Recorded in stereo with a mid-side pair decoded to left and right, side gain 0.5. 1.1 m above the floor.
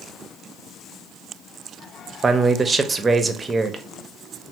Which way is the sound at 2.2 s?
30° right.